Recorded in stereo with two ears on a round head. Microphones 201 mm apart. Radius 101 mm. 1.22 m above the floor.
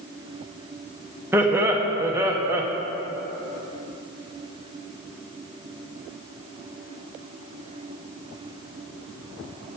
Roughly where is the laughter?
Centre.